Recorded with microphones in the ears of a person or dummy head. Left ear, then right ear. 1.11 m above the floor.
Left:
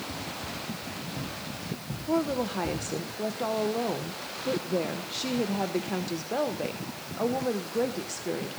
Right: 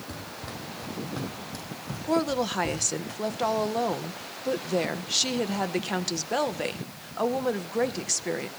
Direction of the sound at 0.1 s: 30° right (ahead or behind).